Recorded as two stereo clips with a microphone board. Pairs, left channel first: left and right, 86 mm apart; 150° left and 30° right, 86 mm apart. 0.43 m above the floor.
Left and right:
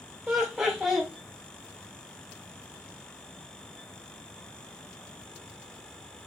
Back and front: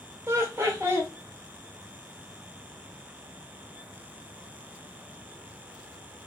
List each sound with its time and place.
0.3 s laughter: 10° right, 1.0 m